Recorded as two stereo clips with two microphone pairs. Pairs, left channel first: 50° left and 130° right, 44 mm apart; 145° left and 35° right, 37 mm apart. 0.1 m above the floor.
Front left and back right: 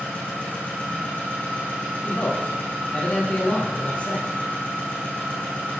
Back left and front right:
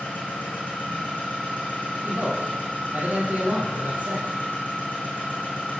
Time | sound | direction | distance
0.0 | an engine running | 105° left | 4 m
2.0 | a man speaking | 10° right | 2.5 m